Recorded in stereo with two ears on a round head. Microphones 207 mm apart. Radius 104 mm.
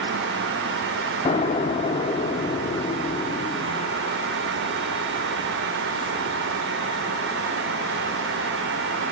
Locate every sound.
1.2 s an explosion: 25° left (ahead or behind), 1.0 m